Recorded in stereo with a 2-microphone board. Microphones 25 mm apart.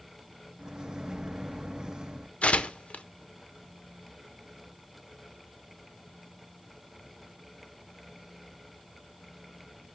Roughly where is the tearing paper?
Left.